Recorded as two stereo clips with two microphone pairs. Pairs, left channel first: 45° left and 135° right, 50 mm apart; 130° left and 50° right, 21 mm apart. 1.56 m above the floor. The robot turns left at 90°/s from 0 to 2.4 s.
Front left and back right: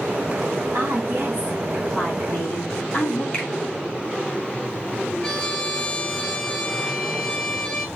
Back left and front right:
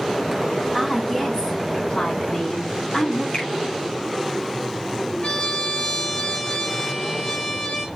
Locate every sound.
0.7 s a woman speaking: 135° right, 3 m; by 3.2 s 75° left, 3 m
3.3 s a finger snap: 105° left, 2 m
5.2 s a trumpet: 105° left, 2 m